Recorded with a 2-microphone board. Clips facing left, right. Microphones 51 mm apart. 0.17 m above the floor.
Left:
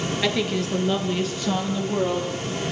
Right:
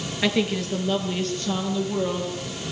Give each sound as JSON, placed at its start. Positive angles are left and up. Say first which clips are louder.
{"t": 0.2, "sound": "a woman speaking", "louder": "right 3 dB", "side_deg": -10, "distance_m": 3.0}